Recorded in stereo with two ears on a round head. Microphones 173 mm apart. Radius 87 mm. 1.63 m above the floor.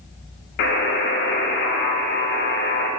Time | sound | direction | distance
0.6 | a buzzer | 55° left (ahead or behind) | 0.7 m